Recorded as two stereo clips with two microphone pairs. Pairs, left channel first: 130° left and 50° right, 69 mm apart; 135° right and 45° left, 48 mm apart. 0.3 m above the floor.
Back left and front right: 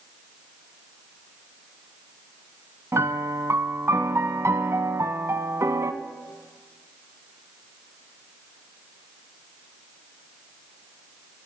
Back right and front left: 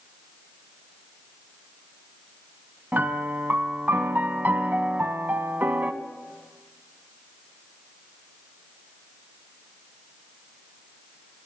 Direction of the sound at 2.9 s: 5° right.